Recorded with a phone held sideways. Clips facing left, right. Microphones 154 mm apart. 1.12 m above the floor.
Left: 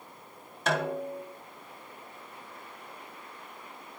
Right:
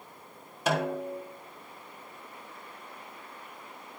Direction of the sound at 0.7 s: 10° right (ahead or behind).